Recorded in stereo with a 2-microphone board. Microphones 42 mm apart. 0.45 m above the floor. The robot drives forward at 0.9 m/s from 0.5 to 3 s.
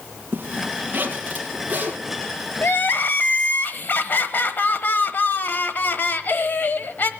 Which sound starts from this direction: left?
Crying, at 2.6 s.